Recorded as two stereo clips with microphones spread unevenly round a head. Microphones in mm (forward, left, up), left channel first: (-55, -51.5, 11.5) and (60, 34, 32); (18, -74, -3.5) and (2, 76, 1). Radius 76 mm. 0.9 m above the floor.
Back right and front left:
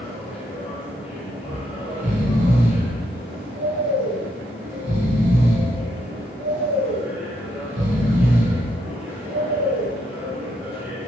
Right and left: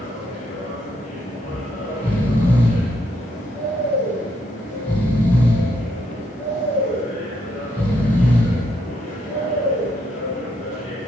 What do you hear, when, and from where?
0.0 s a machine running: 40° right, 4 m
1.4 s snoring: 5° right, 3 m